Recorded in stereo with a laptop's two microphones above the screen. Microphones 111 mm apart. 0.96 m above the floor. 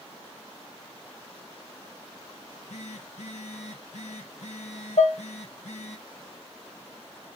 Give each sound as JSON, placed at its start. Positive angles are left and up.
{"t": 2.4, "sound": "a phone buzzing", "side_deg": 80, "distance_m": 1.0}
{"t": 5.0, "sound": "dishes clattering", "side_deg": 85, "distance_m": 0.9}